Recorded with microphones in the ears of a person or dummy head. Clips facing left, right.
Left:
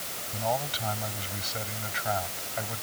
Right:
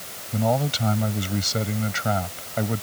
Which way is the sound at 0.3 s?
55° right (ahead or behind).